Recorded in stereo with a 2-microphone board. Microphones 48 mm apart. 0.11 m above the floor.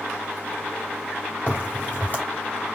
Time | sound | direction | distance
1.5 | a crack | 40° left (ahead or behind) | 2.5 m